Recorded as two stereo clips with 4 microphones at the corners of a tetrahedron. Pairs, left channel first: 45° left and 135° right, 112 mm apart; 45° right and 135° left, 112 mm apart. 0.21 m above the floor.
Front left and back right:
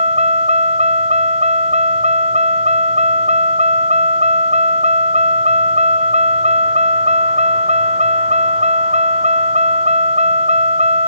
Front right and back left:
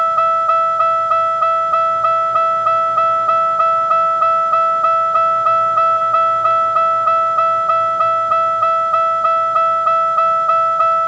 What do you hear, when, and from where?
0.0 s a vehicle: 140° right